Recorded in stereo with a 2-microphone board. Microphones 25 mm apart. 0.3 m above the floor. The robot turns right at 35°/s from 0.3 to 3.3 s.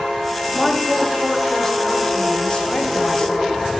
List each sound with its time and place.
0.6 s a woman speaking: 5° right, 1.2 m; by 3.6 s 90° left, 1.2 m